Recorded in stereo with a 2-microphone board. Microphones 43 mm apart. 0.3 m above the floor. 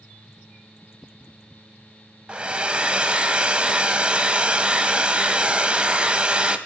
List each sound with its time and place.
2.3 s a hair dryer: 30° right (ahead or behind), 1.0 m